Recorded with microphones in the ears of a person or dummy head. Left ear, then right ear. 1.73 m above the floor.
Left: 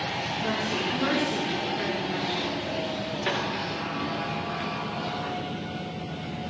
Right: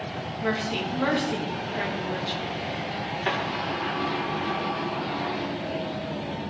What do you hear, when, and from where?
0.4 s a woman speaking: 45° right (ahead or behind), 3.5 m
3.3 s a sliding door: 20° right (ahead or behind), 2.5 m